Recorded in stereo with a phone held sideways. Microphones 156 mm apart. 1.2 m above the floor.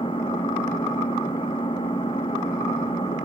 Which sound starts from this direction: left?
An engine running, at 0.0 s.